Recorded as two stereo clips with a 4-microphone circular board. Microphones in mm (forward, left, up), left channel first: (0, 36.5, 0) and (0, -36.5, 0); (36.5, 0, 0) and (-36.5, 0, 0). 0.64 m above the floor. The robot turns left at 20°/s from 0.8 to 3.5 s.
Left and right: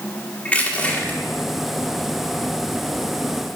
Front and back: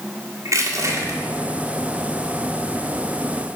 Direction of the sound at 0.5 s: 155° left.